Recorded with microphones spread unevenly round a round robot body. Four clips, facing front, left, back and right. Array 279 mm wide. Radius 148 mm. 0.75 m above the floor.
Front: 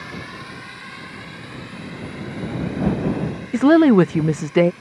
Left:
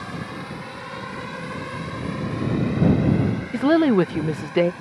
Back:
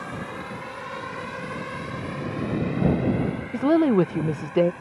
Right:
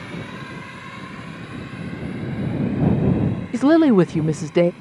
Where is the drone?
155° left; by 4.8 s 135° left.